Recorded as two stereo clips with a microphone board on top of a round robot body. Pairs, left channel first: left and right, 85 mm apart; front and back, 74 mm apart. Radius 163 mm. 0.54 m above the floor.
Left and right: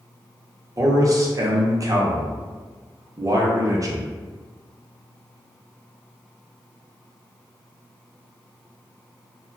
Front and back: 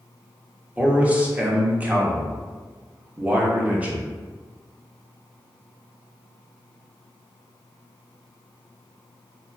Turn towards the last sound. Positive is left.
turn(degrees=-115)